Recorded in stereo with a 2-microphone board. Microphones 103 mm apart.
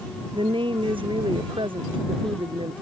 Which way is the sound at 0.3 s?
65° right (ahead or behind).